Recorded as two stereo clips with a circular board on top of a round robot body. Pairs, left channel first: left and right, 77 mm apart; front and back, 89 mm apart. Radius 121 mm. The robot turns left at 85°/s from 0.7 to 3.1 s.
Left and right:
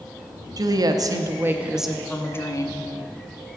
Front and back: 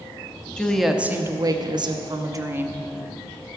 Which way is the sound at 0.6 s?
80° right.